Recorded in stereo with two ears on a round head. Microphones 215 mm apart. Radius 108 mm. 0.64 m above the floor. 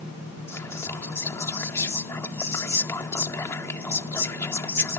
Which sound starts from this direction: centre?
Whispering, at 0.5 s.